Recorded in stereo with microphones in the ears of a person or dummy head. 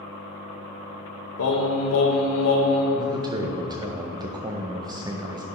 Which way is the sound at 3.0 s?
25° right (ahead or behind).